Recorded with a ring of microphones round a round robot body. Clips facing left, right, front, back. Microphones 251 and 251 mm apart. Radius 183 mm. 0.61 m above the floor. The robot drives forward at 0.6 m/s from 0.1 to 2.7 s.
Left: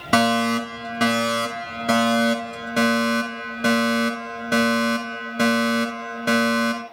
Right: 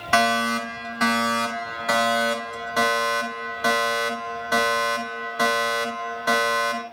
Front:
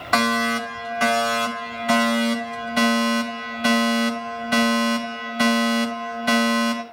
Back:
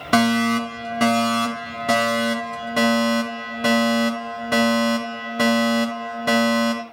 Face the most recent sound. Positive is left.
turn(degrees=150)